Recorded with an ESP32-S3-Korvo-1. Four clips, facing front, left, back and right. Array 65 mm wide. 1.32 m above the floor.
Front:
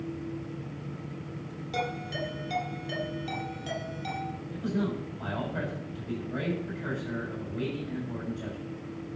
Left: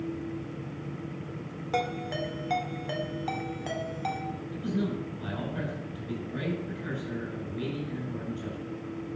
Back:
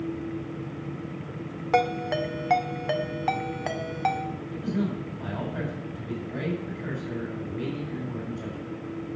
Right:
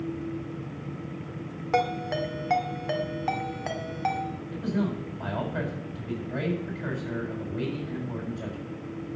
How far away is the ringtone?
About 1.9 m.